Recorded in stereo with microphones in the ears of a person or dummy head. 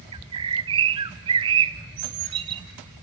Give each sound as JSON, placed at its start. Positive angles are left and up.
{"t": 0.1, "sound": "a bird", "side_deg": -25, "distance_m": 0.7}